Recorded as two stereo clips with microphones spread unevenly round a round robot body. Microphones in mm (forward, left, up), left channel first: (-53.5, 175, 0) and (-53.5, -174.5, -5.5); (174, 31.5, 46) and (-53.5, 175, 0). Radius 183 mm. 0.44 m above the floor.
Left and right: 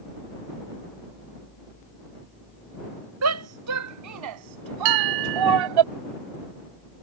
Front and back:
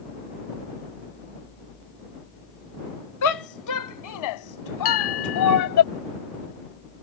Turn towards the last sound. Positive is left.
turn(degrees=-85)